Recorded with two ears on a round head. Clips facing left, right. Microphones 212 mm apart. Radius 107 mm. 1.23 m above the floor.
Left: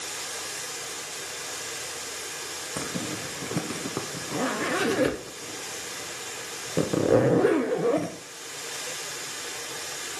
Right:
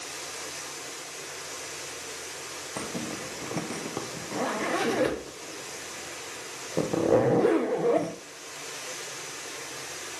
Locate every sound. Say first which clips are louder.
0.0 s running water: left 1 dB; 60° left (ahead or behind), 2.5 m
2.8 s a zipper: left 1 dB; 10° left (ahead or behind), 0.8 m